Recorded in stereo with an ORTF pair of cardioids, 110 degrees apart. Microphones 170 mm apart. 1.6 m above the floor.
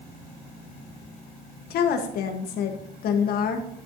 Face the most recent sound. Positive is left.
turn(degrees=65)